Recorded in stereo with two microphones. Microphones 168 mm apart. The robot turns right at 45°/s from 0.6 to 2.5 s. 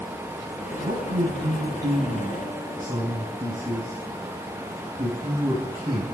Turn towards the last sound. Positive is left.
turn(degrees=-25)